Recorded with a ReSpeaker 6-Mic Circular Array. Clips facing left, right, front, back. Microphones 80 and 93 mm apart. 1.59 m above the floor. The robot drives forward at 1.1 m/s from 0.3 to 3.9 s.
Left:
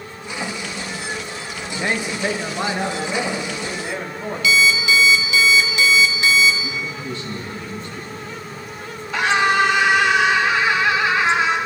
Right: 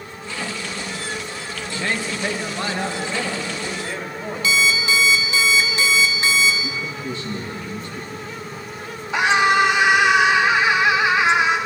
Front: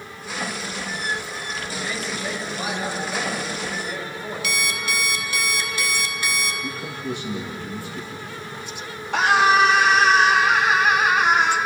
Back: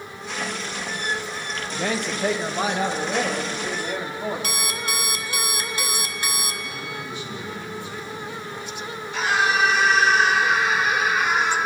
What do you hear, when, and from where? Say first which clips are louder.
1.7 s a man speaking: left 2 dB, back 6 dB; 155° left, 1.5 m; by 4.5 s 170° left, 4 m
4.4 s an alarm clock: left 3 dB, front 2 dB; 140° right, 1.7 m
6.6 s a man speaking: even, front 3 dB; 25° right, 2.5 m
9.1 s a scream: right 1 dB, front 5 dB; 20° right, 3 m